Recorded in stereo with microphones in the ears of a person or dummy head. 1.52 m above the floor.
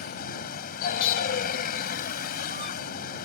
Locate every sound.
0.0 s a vehicle: 60° left (ahead or behind)